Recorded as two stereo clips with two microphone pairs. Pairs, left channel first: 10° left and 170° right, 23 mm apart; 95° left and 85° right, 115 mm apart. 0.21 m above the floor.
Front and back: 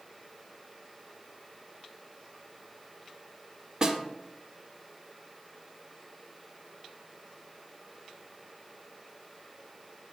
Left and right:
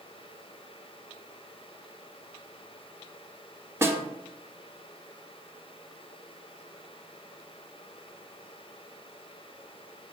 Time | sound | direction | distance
3.8 | a snare drum | 135° right | 1.0 m